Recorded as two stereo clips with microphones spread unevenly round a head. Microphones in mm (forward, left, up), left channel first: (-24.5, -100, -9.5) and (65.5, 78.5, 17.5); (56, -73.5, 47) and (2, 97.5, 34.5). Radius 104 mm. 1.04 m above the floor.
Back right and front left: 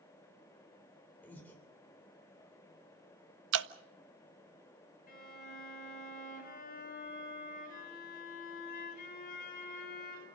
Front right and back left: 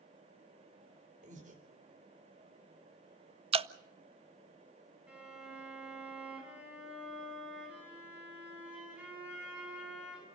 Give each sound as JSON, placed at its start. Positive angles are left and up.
{"t": 1.2, "sound": "breathing", "azimuth_deg": 160, "distance_m": 3.0}
{"t": 3.5, "sound": "dripping", "azimuth_deg": 60, "distance_m": 0.7}
{"t": 5.1, "sound": "a violin", "azimuth_deg": -170, "distance_m": 5.0}